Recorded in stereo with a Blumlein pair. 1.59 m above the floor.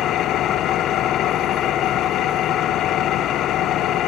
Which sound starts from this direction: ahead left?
An engine running, at 0.0 s.